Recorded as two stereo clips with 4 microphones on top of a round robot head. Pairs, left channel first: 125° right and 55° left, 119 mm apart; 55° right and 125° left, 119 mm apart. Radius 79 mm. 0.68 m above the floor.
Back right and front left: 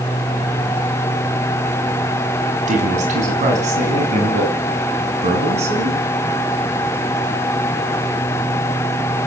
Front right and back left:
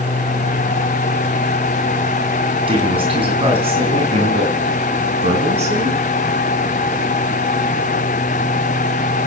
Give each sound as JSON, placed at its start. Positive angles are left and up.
{"t": 2.7, "sound": "a man speaking", "azimuth_deg": 80, "distance_m": 7.0}